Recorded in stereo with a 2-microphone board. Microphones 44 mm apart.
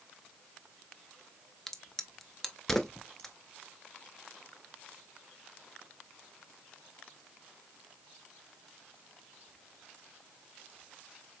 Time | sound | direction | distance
1.7 | a crack | 10° left (ahead or behind) | 0.7 m